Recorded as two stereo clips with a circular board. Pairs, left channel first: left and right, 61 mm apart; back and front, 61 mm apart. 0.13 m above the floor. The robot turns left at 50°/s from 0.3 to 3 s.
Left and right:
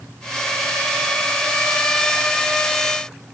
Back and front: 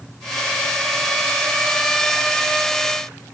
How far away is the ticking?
No ticking in this recording.